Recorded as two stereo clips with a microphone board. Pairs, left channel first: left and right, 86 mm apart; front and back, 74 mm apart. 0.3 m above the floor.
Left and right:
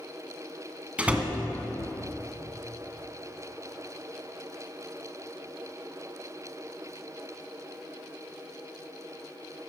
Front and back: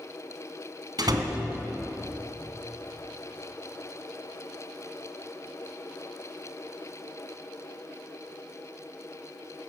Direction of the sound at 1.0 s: 165° right.